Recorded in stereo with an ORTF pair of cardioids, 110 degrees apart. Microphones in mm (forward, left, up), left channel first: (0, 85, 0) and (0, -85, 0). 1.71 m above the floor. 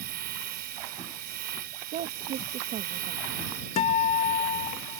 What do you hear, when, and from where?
0.0 s a machine running: 70° right
1.9 s a woman speaking: 60° right
3.8 s a guitar: 40° left